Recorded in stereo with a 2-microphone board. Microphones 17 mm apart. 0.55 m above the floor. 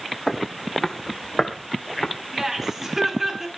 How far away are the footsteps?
About 2 m.